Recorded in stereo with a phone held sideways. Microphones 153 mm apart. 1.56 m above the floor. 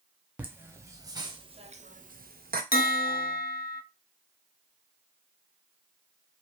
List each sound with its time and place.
0.4 s laughter: 10° right (ahead or behind), 1.0 m; by 2.6 s 75° right (ahead or behind), 0.5 m
2.7 s a bell: 80° left, 0.5 m